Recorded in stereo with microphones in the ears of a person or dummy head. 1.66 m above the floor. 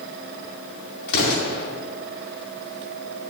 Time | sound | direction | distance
1.1 | an explosion | 60° left (ahead or behind) | 2 m